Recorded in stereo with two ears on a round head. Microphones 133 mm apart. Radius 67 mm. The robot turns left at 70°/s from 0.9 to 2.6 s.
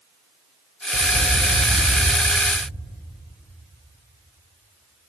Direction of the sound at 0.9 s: 5° right (ahead or behind).